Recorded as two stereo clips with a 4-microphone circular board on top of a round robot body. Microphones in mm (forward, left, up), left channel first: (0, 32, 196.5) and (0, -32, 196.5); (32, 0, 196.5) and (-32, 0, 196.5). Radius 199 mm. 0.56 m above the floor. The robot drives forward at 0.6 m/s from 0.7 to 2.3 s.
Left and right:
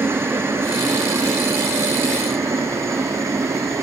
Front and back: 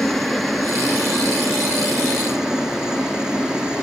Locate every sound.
0.0 s a helicopter: 85° right; by 3.8 s 105° right